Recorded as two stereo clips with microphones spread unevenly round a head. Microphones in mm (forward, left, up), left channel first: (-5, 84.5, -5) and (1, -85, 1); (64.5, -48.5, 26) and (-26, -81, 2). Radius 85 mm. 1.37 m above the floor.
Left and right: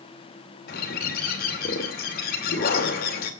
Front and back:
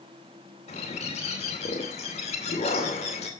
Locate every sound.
0.7 s a bird: 50° left, 2.5 m